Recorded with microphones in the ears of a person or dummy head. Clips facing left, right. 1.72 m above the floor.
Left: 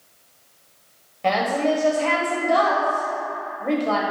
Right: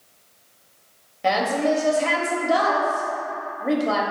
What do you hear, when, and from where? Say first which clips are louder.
1.2 s a woman speaking: even; 10° right (ahead or behind), 1.0 m